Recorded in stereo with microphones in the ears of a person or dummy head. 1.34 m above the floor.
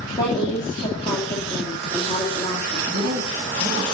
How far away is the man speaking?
About 1.4 m.